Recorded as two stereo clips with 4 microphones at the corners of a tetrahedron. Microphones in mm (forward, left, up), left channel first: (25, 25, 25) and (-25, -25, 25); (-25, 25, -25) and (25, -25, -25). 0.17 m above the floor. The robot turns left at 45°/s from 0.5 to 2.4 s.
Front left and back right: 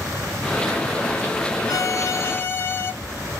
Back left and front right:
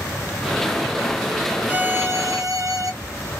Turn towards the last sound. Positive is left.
turn(degrees=-10)